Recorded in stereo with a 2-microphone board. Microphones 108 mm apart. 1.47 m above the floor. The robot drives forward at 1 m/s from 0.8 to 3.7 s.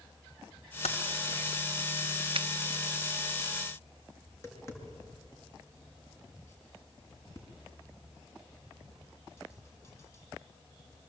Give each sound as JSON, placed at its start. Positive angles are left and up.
{"t": 0.8, "sound": "typing on a keyboard", "side_deg": 80, "distance_m": 1.9}
{"t": 2.4, "sound": "a finger snap", "side_deg": -60, "distance_m": 0.6}
{"t": 4.3, "sound": "tapping", "side_deg": 25, "distance_m": 5.5}